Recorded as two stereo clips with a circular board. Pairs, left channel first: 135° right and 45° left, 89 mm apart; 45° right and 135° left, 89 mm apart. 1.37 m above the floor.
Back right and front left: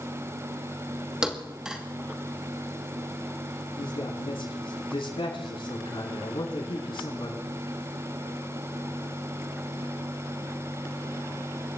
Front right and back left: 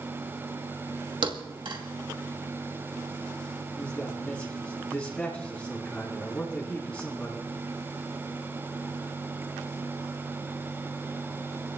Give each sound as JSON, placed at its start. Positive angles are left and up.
{"t": 1.2, "sound": "a thud", "azimuth_deg": 125, "distance_m": 2.5}
{"t": 3.8, "sound": "a man speaking", "azimuth_deg": -115, "distance_m": 8.5}